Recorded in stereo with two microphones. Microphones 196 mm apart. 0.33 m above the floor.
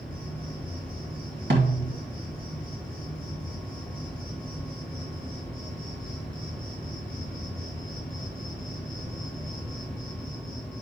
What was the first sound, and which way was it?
An insect, 55° right (ahead or behind).